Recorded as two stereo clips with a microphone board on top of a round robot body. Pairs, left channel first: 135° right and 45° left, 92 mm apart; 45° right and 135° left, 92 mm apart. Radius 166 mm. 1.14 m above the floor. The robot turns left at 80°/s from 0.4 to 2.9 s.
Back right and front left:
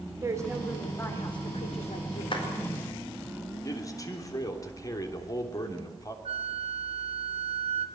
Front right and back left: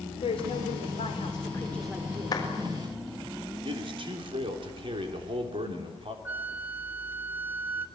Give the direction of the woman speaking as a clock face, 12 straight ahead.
1 o'clock.